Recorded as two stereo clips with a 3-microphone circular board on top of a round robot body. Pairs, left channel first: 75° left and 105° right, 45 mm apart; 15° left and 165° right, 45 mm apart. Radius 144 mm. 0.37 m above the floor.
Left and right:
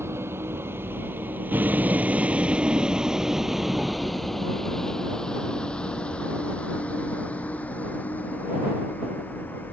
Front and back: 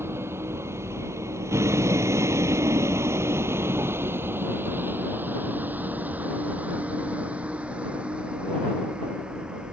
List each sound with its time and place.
0.0 s a vehicle: 135° right; by 9.7 s 125° left